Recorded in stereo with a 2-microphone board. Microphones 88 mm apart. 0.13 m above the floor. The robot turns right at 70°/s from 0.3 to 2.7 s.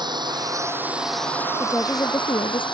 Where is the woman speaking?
15° left; by 2.7 s 85° left.